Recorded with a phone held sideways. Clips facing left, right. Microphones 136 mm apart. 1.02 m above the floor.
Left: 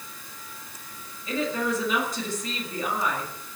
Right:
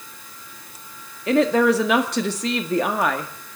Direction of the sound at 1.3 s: 75° right (ahead or behind).